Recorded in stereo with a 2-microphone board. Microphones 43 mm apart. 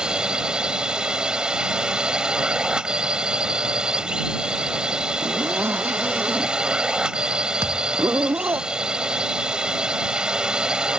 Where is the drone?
15° right (ahead or behind).